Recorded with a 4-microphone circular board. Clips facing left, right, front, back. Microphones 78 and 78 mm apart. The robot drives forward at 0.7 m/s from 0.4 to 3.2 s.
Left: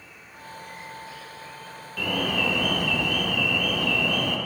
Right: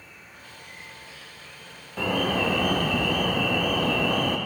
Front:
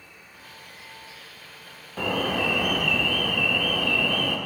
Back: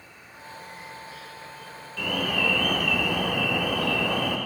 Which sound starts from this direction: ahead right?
An alarm, at 2.0 s.